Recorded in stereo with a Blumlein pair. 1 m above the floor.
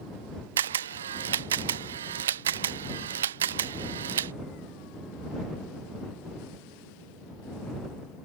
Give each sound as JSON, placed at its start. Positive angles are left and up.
{"t": 0.6, "sound": "a camera shutter", "azimuth_deg": -60}